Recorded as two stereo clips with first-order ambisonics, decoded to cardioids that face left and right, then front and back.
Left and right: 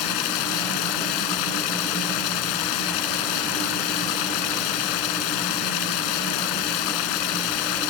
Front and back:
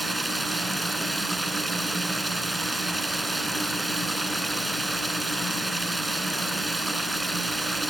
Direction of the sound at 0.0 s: 100° left.